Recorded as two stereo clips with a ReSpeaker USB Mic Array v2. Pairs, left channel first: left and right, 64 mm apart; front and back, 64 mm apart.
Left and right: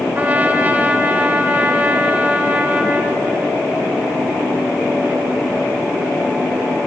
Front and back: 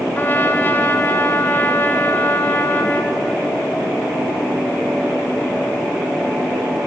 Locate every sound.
0.1 s a trumpet: 40° right, 1.6 m